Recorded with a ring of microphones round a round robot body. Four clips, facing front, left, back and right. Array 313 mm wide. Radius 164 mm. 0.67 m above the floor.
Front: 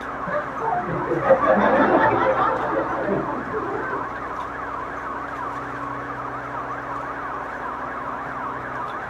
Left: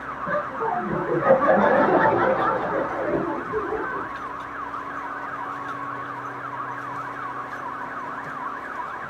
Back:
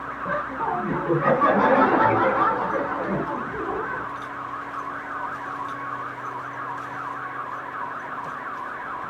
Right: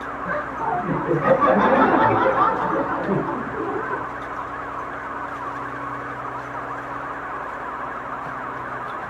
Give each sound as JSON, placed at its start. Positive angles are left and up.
{"t": 0.2, "sound": "laughter", "azimuth_deg": -130, "distance_m": 6.5}